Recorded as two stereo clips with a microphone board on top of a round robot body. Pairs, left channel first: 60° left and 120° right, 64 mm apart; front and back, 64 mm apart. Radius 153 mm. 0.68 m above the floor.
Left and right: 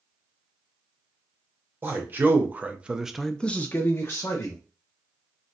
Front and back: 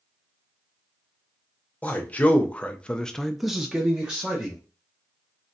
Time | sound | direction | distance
1.8 | a man speaking | 70° right | 0.9 m